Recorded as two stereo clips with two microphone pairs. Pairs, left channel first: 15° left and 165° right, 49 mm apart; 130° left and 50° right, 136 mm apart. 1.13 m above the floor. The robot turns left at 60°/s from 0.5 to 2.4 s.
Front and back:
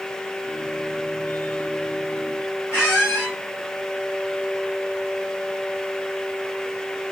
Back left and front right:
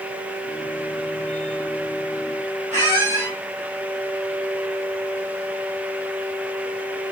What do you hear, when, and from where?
2.7 s a squeak: 20° left, 1.9 m